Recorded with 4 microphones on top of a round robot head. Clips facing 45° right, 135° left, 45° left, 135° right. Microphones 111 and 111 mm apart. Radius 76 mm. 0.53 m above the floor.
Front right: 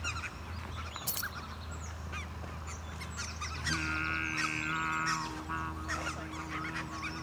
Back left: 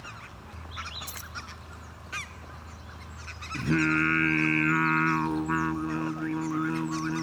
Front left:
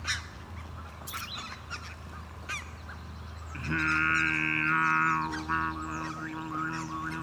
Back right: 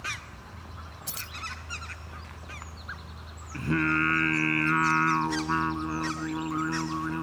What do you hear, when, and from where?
1.1 s keys jangling: 110° right
3.5 s singing: 165° left